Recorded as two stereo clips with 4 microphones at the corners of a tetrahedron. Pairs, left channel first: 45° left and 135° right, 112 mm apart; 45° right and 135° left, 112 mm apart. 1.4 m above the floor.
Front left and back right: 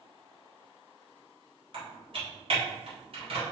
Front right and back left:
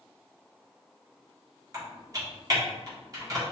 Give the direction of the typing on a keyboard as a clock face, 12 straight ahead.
6 o'clock.